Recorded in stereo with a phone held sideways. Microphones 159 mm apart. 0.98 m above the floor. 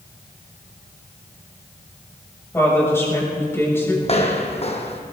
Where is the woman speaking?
15° left (ahead or behind), 6 m.